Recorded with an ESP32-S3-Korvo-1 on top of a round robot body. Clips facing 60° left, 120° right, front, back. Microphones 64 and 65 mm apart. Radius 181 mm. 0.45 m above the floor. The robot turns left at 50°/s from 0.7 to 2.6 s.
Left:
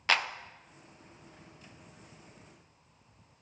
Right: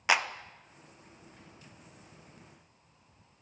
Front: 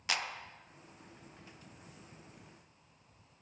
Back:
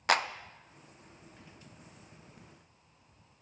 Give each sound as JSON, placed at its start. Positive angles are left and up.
{"t": 0.1, "sound": "a clap", "azimuth_deg": 165, "distance_m": 0.7}